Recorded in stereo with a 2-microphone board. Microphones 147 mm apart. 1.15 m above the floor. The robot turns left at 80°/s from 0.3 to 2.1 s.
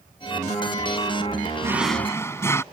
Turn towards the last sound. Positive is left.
turn(degrees=165)